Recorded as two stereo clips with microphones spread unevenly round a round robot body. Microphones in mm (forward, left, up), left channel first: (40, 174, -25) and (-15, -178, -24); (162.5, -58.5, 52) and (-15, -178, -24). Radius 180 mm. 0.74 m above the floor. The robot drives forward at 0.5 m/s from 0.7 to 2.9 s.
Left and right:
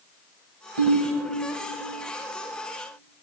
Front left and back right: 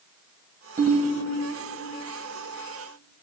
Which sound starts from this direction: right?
A ringtone, at 0.8 s.